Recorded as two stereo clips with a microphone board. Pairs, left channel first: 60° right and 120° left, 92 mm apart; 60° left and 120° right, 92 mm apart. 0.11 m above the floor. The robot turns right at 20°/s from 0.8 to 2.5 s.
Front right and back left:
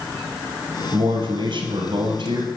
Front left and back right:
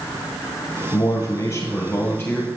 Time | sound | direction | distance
0.9 | a man speaking | 95° left | 2.5 m